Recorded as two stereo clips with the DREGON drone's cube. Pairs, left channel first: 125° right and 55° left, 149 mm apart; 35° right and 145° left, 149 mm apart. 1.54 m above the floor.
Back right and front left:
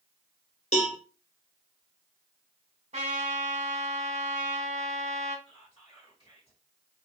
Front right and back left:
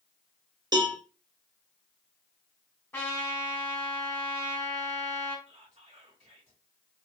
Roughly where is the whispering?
Behind.